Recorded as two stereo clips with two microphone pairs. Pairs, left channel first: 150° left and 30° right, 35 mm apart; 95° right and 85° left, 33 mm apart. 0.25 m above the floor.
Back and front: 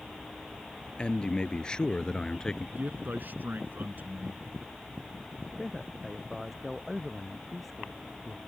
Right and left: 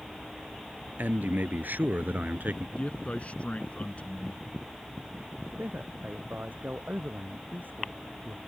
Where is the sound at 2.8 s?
50° right.